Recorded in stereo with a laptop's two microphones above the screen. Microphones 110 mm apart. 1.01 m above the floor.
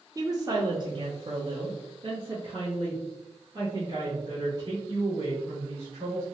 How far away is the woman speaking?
About 0.7 m.